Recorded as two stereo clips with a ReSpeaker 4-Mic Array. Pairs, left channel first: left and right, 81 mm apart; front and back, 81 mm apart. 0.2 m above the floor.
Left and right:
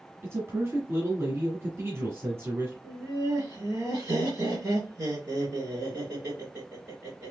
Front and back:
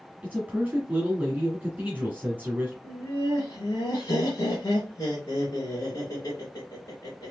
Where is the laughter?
30° right, 2.5 m.